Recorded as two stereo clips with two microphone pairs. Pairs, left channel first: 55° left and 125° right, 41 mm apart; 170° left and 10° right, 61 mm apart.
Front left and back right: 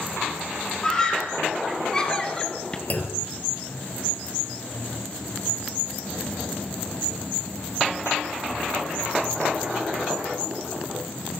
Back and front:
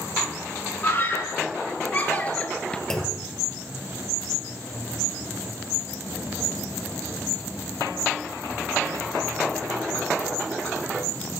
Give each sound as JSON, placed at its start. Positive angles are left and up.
{"t": 0.8, "sound": "a scream", "azimuth_deg": 125, "distance_m": 3.5}
{"t": 2.9, "sound": "a clunk", "azimuth_deg": 90, "distance_m": 2.5}